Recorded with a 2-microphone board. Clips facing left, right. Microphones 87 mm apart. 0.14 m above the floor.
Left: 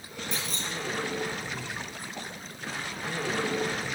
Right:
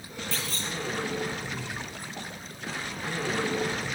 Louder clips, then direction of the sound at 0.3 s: Even; 20° left (ahead or behind).